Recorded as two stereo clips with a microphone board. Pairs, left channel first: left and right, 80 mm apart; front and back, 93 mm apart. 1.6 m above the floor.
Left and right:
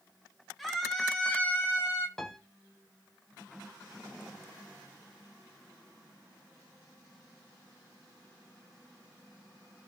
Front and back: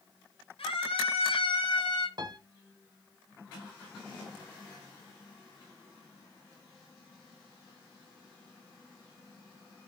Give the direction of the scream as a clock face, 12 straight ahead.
12 o'clock.